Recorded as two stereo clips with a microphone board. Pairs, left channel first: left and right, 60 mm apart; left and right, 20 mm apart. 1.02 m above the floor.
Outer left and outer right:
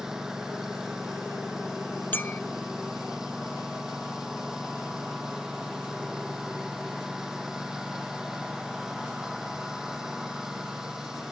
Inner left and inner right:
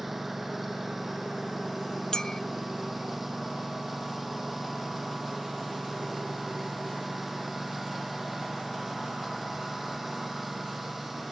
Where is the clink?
30° left (ahead or behind).